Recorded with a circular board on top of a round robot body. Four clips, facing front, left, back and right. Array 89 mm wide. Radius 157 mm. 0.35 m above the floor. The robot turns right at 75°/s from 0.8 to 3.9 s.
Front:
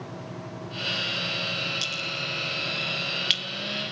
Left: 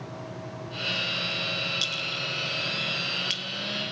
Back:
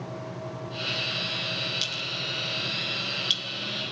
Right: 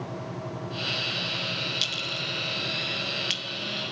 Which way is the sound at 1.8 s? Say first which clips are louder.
Even, front 2 dB; 120° right.